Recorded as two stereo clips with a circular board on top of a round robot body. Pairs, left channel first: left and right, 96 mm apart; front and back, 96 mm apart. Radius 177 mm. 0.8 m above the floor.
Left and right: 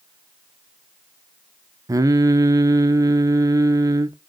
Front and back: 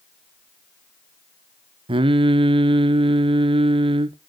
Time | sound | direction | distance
1.9 | singing | 145° right | 0.7 m